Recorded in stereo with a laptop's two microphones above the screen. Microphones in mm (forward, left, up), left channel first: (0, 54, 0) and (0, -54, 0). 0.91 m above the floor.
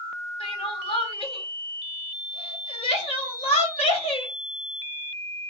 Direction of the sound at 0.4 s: 60° left (ahead or behind).